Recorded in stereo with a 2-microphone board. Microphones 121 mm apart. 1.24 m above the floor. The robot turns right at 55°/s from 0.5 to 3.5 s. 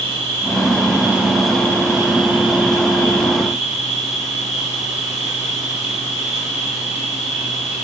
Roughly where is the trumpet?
I don't hear a trumpet.